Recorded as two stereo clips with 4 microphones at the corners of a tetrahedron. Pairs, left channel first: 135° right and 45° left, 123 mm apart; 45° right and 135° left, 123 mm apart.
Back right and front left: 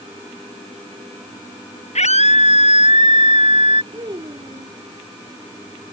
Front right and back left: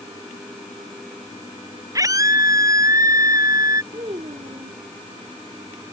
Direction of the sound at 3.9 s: 95° left.